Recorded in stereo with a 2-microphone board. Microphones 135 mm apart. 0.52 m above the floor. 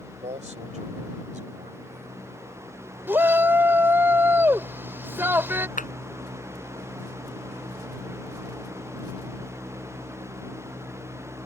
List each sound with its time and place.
0.2 s a man speaking: 55° right (ahead or behind); by 2.4 s 70° right (ahead or behind)
3.1 s a shout: 15° right (ahead or behind)
5.8 s a clap: 80° left